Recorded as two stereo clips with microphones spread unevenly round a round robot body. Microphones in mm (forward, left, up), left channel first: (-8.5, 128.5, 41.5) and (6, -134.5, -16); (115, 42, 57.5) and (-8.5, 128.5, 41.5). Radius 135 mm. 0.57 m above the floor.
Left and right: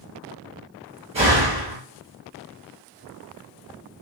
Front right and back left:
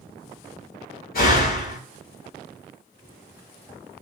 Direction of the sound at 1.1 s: 20° right.